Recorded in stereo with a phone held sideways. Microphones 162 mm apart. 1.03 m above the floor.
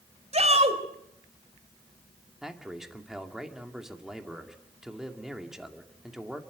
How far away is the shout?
About 4 m.